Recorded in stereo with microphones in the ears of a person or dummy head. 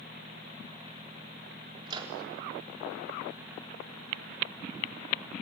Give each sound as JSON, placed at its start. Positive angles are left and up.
{"t": 1.9, "sound": "a microwave", "side_deg": -25, "distance_m": 4.0}